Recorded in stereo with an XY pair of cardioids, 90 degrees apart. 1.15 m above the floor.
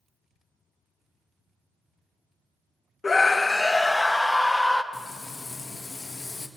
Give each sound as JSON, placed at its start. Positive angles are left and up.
{"t": 3.0, "sound": "a scream", "azimuth_deg": 35, "distance_m": 0.5}
{"t": 4.9, "sound": "frying", "azimuth_deg": 25, "distance_m": 1.5}